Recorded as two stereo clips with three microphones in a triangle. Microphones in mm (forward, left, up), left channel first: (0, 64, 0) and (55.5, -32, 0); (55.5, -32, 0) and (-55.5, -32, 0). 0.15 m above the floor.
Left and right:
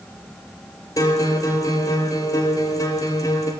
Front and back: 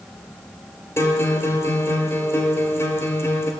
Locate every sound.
1.0 s a guitar: 65° left, 1.3 m